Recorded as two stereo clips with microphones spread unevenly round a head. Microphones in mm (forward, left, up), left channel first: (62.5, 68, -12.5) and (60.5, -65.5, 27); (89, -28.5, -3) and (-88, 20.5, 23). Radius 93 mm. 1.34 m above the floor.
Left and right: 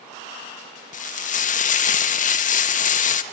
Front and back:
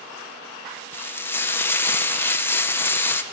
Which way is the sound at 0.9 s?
65° left.